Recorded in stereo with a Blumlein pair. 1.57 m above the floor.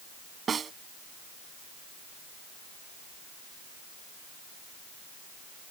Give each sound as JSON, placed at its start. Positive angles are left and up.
{"t": 0.5, "sound": "a snare drum", "azimuth_deg": -20}